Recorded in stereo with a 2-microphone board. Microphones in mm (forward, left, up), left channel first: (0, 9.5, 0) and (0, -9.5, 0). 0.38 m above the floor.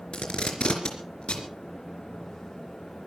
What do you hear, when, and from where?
0.1 s tape being pulled: 65° left (ahead or behind), 3.5 m